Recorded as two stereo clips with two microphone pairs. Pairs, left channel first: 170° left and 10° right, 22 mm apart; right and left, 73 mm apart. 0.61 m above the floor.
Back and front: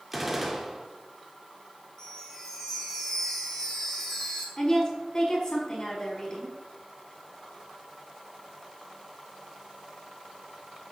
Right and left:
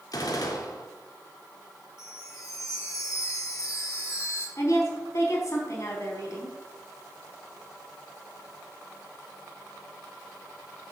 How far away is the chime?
About 3 m.